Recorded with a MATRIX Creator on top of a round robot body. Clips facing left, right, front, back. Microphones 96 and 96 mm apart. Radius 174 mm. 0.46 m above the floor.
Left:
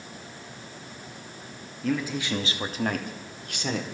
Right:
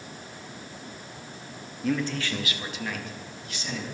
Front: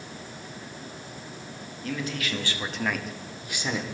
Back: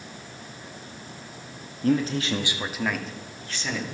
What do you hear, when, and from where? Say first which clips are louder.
1.8 s a man speaking: even, back 9 dB; 175° right, 1.5 m; by 3.8 s 70° left, 2.5 m